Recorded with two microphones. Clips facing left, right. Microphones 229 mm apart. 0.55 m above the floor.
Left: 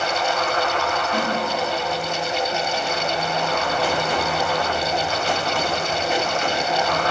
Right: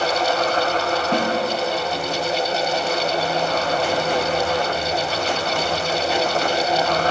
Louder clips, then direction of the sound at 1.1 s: Right 4 dB; 65° right (ahead or behind).